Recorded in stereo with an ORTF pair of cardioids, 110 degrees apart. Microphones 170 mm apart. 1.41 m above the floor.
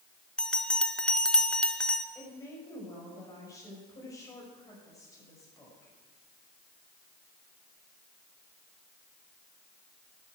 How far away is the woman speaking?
About 5.5 m.